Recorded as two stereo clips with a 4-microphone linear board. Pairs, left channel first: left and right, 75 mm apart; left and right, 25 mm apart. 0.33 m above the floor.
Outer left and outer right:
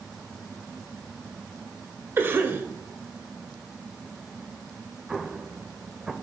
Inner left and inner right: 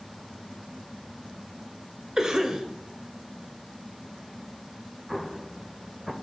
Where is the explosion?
5° right (ahead or behind), 0.6 m.